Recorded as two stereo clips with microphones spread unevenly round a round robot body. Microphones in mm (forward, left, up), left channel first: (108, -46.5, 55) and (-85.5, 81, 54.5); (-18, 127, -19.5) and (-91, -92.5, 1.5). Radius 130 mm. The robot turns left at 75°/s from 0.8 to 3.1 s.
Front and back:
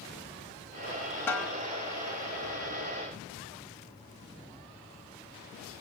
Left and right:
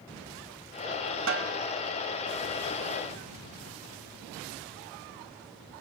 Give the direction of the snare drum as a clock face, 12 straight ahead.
4 o'clock.